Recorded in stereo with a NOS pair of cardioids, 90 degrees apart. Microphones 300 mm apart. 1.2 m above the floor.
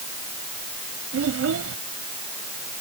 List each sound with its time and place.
1.1 s a child speaking: 50° right